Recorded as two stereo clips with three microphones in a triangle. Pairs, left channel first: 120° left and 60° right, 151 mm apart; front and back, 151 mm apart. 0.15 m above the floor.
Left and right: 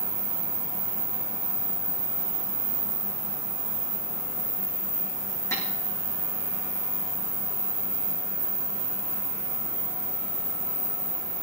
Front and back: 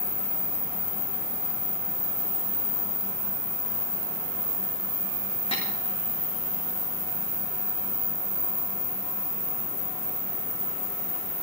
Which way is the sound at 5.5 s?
50° left.